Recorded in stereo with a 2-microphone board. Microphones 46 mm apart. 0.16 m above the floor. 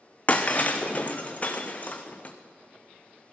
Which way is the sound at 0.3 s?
30° left (ahead or behind).